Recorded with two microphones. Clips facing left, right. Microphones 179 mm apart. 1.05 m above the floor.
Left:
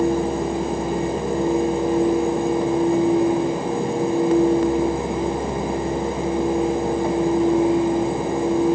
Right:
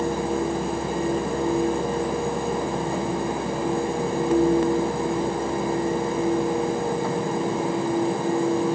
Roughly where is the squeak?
I don't hear a squeak.